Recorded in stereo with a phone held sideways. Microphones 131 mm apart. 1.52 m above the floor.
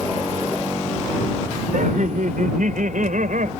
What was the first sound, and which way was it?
Laughter, 85° right.